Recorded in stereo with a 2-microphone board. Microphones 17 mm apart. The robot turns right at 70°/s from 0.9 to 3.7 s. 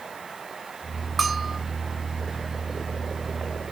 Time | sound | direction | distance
1.2 | a bell | centre (ahead or behind) | 0.7 m